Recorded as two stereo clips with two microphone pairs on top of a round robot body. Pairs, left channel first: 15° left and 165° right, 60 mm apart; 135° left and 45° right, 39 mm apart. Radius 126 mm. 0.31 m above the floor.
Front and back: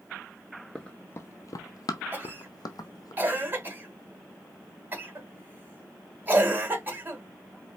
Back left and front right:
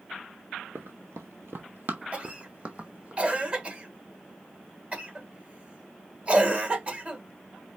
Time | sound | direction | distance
0.8 | running footsteps | 75° right | 0.5 m
2.1 | a cough | 105° right | 1.9 m